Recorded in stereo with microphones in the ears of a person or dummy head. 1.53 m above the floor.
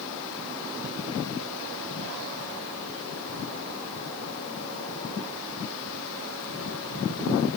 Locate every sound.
Only background noise.